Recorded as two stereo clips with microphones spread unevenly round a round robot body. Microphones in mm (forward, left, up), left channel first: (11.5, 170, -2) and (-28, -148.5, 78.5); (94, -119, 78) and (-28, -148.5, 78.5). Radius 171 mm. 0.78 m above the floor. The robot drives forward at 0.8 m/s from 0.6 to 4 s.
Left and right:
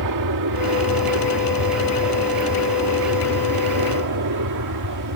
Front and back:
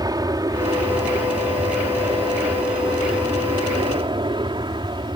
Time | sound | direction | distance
0.0 | an aircraft | 115° right | ?